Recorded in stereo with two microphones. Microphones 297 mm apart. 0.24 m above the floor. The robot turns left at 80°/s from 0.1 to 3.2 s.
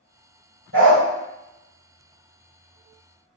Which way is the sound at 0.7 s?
40° right (ahead or behind).